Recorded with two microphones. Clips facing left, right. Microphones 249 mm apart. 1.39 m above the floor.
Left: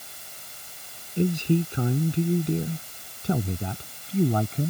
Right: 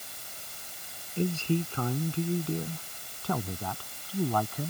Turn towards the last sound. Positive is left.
turn(degrees=25)  # may be behind; listen again after turning